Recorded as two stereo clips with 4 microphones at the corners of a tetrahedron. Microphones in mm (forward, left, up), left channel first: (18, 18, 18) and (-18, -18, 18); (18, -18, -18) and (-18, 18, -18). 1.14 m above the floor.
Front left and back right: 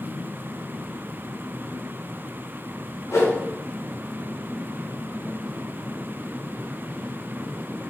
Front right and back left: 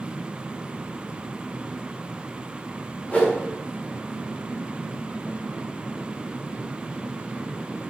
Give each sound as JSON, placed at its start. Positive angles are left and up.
{"t": 3.1, "sound": "a whoosh", "azimuth_deg": 15, "distance_m": 0.9}